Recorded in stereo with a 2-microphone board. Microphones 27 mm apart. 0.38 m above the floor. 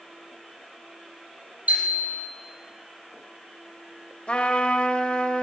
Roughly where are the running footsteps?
No running footsteps in this recording.